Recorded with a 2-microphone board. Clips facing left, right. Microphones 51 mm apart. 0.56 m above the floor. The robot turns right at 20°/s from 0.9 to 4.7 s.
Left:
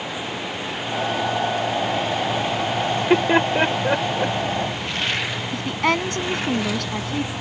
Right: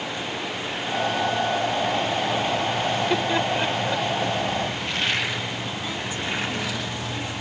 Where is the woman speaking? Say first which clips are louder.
Left 9 dB; 80° left.